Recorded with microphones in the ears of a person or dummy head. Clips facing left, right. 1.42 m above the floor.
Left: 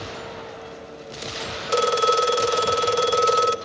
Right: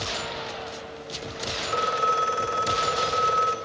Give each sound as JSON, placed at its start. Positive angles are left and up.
{"t": 1.7, "sound": "a phone ringing", "side_deg": 60, "distance_m": 1.1}